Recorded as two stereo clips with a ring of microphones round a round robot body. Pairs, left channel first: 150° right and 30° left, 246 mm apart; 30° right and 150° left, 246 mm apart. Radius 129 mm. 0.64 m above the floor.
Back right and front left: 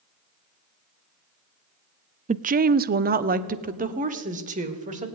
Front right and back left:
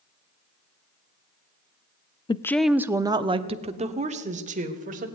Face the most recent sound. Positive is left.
turn(degrees=90)